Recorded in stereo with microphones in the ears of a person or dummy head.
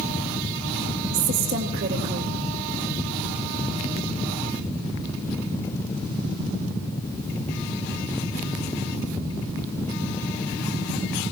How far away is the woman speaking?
About 3.5 m.